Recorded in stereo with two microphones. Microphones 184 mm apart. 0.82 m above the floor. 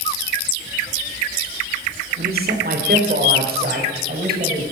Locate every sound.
2.2 s a man speaking: 60° right (ahead or behind), 2.5 m